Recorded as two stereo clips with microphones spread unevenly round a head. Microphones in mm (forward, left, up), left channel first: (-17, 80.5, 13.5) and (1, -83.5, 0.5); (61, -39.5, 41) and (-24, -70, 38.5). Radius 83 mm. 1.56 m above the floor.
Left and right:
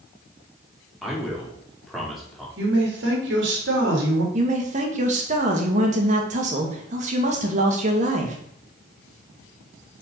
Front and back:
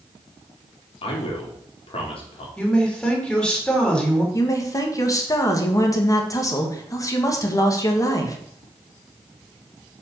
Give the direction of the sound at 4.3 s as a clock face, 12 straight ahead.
1 o'clock.